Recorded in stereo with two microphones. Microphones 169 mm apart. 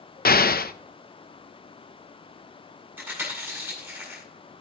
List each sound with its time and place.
0.2 s an explosion: 65° left (ahead or behind), 0.7 m
3.0 s chewing: 10° right (ahead or behind), 8 m